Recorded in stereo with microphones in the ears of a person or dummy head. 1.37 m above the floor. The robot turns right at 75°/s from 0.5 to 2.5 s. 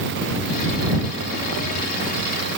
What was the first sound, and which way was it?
Only background noise.